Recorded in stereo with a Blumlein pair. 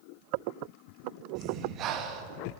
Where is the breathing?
35° right, 2 m.